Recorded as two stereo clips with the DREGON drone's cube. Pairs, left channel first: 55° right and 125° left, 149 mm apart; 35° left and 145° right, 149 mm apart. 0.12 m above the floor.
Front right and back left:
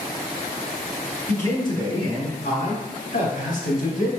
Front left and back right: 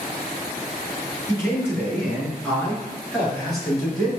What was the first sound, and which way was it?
A man speaking, 5° right.